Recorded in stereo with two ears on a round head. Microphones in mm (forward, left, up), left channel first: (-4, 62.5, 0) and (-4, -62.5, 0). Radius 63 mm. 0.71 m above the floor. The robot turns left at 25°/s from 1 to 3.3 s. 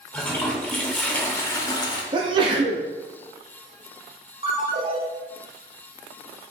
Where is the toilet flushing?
10° left (ahead or behind), 0.6 m; by 2.0 s 35° left (ahead or behind), 0.6 m.